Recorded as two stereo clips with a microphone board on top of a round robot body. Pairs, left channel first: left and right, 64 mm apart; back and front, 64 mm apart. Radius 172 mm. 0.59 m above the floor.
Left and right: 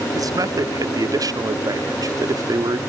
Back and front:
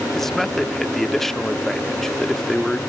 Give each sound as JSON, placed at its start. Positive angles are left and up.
{"t": 0.1, "sound": "a man speaking", "azimuth_deg": -95}